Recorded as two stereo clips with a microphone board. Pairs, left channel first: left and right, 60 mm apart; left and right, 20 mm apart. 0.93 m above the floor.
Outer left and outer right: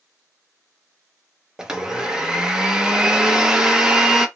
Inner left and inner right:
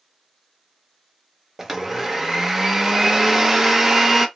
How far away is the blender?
About 0.6 m.